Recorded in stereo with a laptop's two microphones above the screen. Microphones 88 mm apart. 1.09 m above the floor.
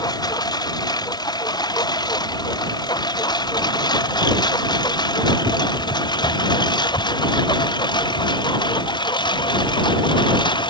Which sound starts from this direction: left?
A lawn mower, at 0.0 s.